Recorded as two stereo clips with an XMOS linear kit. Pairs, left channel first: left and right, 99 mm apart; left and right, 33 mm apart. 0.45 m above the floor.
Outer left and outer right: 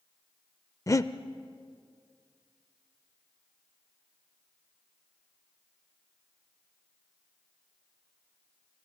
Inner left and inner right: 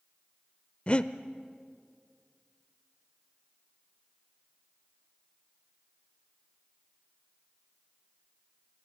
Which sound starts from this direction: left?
Breathing, at 0.9 s.